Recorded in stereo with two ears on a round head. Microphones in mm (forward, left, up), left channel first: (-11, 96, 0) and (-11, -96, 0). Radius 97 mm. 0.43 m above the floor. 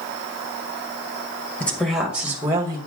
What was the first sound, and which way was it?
A woman speaking, 5° left (ahead or behind).